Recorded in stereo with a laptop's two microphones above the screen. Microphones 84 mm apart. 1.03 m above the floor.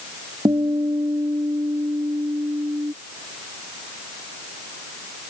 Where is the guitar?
60° right (ahead or behind).